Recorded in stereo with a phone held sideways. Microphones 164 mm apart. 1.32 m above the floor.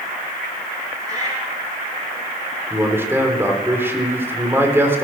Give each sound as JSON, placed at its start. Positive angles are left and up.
{"t": 1.0, "sound": "a cat meowing", "side_deg": -20, "distance_m": 7.5}
{"t": 2.7, "sound": "a man speaking", "side_deg": -15, "distance_m": 4.0}